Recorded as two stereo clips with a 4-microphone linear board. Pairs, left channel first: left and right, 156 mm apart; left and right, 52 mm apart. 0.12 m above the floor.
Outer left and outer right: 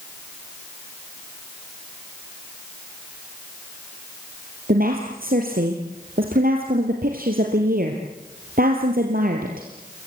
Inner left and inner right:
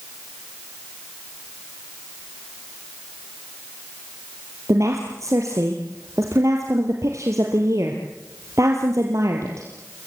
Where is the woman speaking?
65° right (ahead or behind), 3 m.